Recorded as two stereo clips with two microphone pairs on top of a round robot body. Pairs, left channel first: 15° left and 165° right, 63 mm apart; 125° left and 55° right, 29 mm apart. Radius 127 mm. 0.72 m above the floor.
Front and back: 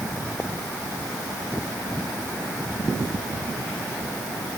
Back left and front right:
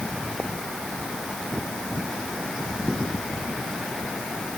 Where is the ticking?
I don't hear ticking.